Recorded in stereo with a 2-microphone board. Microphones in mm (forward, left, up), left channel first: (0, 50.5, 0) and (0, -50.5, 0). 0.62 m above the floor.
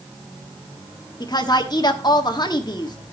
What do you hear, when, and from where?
1.2 s a woman speaking: 40° left (ahead or behind), 1.2 m